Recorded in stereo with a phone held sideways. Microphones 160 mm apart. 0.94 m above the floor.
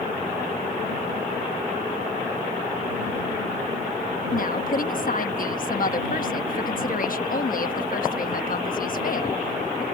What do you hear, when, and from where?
4.3 s a woman speaking: 60° left (ahead or behind)